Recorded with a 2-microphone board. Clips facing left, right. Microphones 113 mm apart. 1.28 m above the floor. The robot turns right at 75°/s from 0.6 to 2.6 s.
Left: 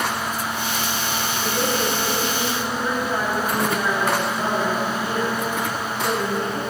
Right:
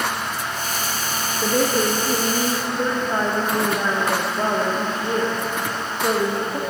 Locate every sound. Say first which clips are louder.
1.4 s a woman speaking: right 5 dB; 120° right, 1.4 m; by 6.6 s 30° right, 1.4 m